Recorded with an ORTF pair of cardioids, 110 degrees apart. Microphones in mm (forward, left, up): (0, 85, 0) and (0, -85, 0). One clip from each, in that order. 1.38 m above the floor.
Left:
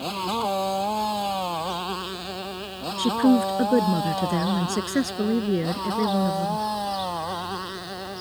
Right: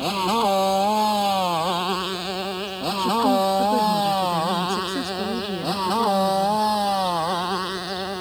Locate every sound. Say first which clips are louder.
0.0 s a motorcycle: right 5 dB; 35° right; by 8.2 s 40° right
3.0 s a woman speaking: right 2 dB; 35° left